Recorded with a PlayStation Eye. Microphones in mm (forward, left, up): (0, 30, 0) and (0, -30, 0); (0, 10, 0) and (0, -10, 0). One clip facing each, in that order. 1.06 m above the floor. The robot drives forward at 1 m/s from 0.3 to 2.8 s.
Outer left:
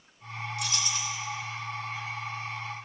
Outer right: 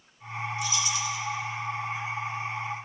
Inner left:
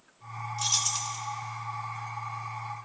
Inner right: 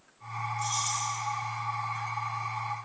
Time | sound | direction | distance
0.6 | keys jangling | 65° left (ahead or behind) | 0.6 m